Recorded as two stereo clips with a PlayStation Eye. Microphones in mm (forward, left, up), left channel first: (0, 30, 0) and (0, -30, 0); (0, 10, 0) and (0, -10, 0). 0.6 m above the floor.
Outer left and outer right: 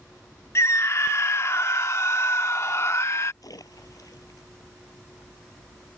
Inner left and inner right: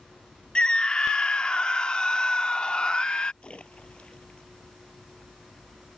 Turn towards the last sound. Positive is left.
turn(degrees=80)